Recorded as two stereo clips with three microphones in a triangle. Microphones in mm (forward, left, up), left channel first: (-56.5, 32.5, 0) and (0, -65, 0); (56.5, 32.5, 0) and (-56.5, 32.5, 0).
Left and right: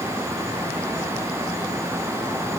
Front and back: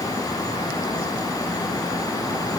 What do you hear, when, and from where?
Only background noise.